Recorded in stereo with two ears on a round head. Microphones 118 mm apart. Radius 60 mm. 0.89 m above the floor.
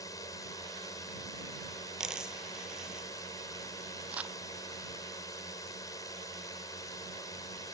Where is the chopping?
No chopping in this recording.